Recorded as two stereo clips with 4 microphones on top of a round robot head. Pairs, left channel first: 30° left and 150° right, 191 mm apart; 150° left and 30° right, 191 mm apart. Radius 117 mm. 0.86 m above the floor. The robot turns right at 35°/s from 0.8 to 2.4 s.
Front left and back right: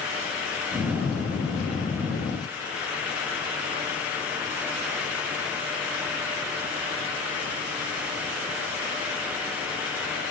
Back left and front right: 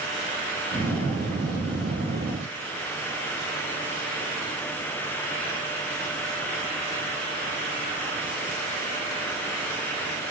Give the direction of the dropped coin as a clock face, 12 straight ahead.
I don't hear a dropped coin.